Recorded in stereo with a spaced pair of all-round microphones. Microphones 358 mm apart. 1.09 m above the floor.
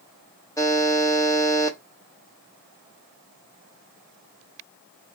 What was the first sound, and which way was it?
A buzzer, 10° left (ahead or behind).